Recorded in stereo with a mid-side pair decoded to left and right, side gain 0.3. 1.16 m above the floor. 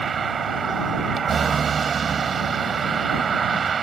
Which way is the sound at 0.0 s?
55° right.